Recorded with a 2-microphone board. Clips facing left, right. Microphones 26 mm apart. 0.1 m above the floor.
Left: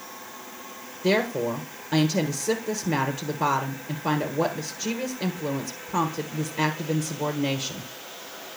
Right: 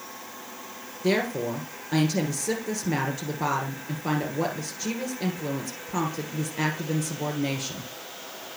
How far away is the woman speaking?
About 1.5 m.